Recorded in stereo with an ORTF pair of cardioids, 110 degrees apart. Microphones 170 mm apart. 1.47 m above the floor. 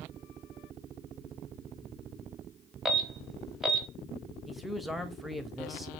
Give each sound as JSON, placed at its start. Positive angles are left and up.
{"t": 2.9, "sound": "an alarm", "azimuth_deg": 0, "distance_m": 0.9}
{"t": 4.5, "sound": "a man speaking", "azimuth_deg": 0, "distance_m": 0.8}